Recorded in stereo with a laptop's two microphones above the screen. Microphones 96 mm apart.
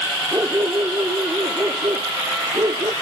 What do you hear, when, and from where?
0.3 s a dog barking: 35° right (ahead or behind); by 2.9 s 45° right (ahead or behind)